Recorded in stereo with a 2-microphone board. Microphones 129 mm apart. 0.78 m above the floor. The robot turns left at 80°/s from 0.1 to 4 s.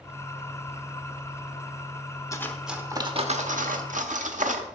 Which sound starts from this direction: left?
Cutlery clinking, at 2.3 s.